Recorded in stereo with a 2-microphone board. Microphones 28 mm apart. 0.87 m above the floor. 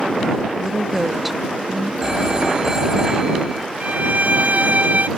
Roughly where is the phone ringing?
Right.